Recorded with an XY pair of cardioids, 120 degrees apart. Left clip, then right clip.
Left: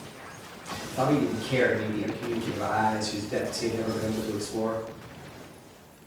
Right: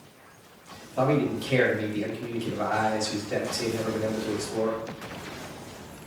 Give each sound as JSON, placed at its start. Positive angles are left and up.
{"t": 1.0, "sound": "a man speaking", "azimuth_deg": -45, "distance_m": 1.3}